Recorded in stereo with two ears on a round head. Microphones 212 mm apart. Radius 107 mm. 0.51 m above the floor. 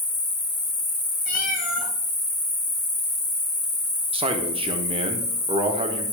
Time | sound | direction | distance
0.0 | an insect | 25° left (ahead or behind) | 4.5 m
1.3 | a cat meowing | 40° left (ahead or behind) | 1.7 m
4.1 | a man speaking | 25° right (ahead or behind) | 1.0 m